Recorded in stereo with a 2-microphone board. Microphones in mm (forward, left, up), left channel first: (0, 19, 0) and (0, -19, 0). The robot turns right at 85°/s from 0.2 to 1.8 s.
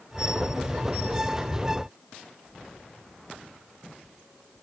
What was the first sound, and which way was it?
Only background noise.